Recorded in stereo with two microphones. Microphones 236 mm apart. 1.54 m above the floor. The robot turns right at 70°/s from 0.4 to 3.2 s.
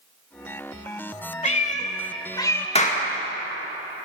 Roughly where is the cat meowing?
Left.